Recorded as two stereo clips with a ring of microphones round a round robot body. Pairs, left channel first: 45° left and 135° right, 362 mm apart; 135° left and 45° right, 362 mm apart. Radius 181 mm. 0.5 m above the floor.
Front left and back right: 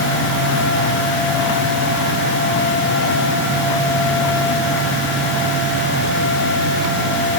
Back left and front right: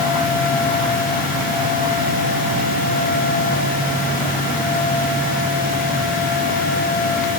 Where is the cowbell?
No cowbell in this recording.